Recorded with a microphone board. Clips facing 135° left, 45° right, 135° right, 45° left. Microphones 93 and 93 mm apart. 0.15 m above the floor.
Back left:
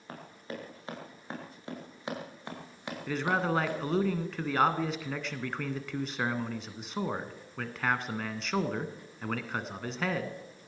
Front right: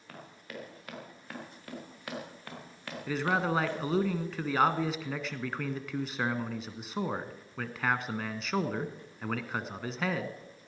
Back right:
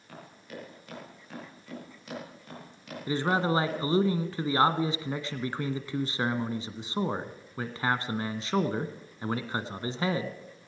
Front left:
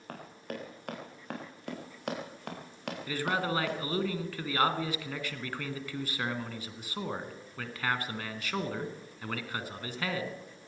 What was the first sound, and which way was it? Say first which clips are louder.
Running footsteps: back left 4 dB, front left 3 dB; 75° left.